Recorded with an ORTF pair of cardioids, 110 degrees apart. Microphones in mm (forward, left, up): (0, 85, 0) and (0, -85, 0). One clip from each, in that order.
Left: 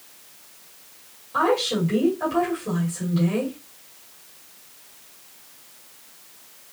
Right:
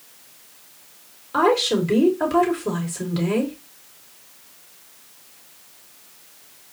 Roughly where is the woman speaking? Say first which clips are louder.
Right 3 dB; ahead right.